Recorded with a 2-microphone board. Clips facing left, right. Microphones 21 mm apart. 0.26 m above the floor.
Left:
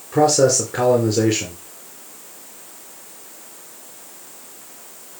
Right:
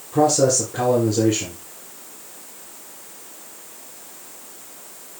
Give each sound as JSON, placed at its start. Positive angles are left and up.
{"t": 0.1, "sound": "a man speaking", "side_deg": 50, "distance_m": 3.5}